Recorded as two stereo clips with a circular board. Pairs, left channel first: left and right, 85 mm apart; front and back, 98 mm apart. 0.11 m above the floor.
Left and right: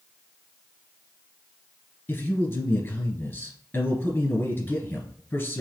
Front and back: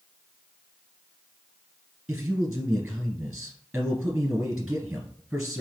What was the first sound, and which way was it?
A man speaking, 110° left.